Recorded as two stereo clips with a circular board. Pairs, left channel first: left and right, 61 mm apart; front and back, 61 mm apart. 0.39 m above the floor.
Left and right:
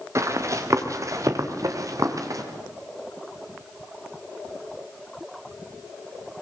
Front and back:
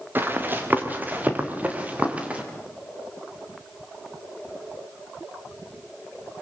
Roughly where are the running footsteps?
Behind right.